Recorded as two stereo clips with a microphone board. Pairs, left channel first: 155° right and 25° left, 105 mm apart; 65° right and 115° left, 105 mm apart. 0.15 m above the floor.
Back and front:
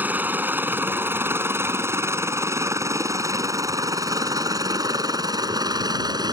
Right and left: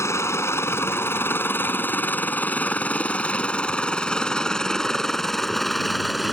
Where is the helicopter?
35° right; by 6.3 s 25° left.